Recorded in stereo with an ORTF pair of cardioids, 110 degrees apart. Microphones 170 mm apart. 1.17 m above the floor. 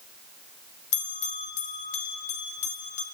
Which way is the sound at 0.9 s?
45° left.